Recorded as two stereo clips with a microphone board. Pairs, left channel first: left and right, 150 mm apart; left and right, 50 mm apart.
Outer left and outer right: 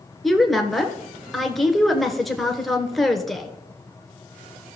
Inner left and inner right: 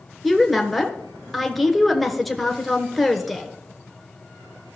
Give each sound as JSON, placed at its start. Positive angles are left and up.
{"t": 0.2, "sound": "a woman speaking", "side_deg": 0, "distance_m": 1.3}